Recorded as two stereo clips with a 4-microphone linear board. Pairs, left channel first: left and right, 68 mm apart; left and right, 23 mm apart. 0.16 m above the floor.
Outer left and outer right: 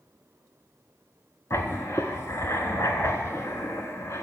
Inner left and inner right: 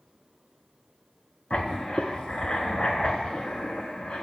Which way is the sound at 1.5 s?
50° left (ahead or behind).